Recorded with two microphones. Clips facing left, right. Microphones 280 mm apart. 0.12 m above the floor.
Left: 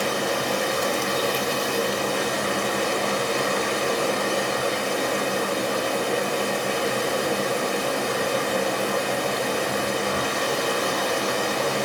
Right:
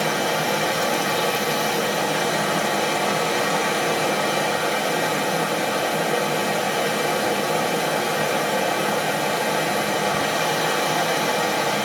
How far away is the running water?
About 1.5 m.